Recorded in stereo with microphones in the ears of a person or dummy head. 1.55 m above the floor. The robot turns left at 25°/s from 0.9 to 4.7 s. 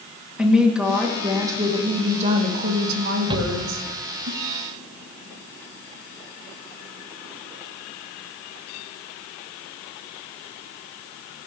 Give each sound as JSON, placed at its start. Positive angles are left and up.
{"t": 0.4, "sound": "a woman speaking", "azimuth_deg": -5, "distance_m": 3.0}
{"t": 3.3, "sound": "a shout", "side_deg": -25, "distance_m": 1.8}